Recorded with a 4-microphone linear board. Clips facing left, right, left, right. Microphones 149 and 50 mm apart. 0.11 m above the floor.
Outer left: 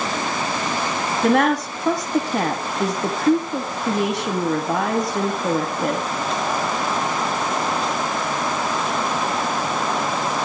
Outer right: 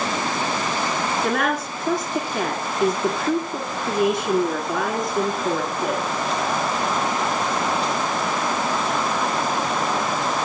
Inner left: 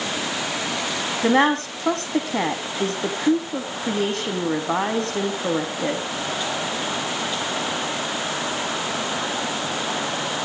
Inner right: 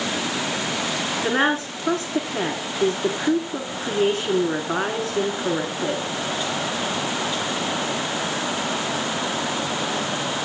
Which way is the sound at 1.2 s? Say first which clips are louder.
Outer left 10 dB, inner left 4 dB; 70° left (ahead or behind).